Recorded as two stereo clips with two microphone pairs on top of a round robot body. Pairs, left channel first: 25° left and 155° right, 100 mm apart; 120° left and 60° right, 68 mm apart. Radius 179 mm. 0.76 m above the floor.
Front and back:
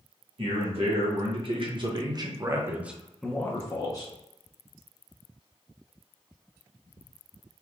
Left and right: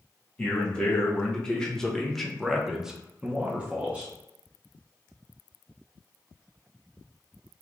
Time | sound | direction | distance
0.4 | a man speaking | 165° right | 1.5 m